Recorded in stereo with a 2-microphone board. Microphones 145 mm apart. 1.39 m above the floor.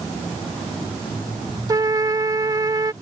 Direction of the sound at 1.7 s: 25° right (ahead or behind).